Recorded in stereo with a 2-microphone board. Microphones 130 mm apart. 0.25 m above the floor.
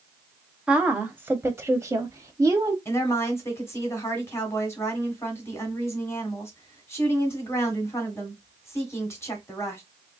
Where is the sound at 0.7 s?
10° right (ahead or behind), 1.1 m; by 2.8 s 25° right (ahead or behind), 1.3 m.